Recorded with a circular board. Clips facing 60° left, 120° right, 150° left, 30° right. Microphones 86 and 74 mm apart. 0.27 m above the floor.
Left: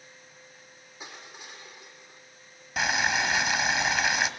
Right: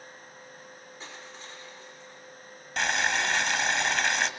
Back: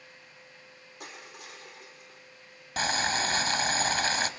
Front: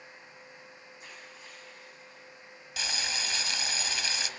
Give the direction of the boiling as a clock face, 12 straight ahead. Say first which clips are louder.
Left 1 dB, back 8 dB; 7 o'clock.